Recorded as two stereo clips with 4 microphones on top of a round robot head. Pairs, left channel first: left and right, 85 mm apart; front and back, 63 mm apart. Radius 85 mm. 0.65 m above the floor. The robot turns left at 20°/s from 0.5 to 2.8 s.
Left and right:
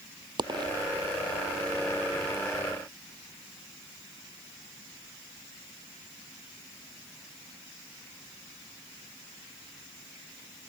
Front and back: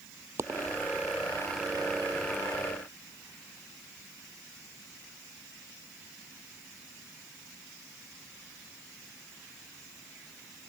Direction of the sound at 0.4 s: 125° right.